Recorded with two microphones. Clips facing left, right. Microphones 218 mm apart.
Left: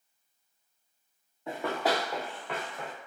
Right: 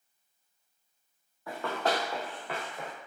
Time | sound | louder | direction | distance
1.5 | running footsteps | left 1 dB | 20° left (ahead or behind) | 0.7 m